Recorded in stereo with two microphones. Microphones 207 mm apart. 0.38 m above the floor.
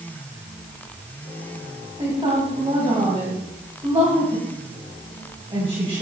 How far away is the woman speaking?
About 2.5 m.